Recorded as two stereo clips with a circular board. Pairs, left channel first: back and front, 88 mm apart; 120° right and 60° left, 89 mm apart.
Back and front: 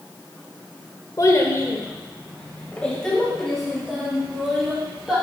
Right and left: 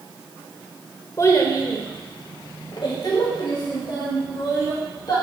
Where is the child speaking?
160° right, 1.2 m; by 5.2 s 85° right, 3 m.